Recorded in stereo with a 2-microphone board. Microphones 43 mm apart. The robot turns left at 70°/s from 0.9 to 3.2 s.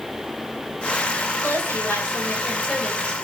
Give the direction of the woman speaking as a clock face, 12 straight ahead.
8 o'clock.